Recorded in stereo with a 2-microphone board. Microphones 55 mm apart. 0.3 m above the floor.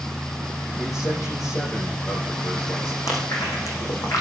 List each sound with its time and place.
0.8 s a man speaking: 80° left, 8 m
3.1 s chewing: 75° left (ahead or behind), 4 m